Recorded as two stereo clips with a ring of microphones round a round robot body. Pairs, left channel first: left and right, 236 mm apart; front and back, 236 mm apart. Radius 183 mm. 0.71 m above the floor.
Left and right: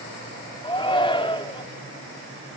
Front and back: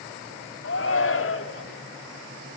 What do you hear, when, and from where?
0.6 s a shout: 20° left, 2 m